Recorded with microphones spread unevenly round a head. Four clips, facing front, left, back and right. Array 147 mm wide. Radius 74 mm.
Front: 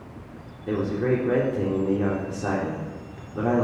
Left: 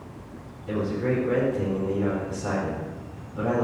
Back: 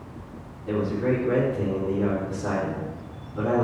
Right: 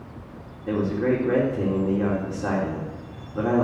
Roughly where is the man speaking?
Ahead right.